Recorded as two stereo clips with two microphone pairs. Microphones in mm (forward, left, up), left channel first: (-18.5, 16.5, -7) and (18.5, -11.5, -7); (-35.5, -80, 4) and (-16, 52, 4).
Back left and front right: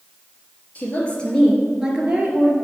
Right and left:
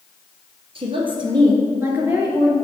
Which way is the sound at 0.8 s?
105° left.